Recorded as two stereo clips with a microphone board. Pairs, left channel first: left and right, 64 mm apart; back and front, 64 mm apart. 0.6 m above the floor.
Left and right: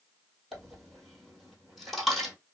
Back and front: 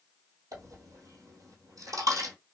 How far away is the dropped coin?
About 1.1 m.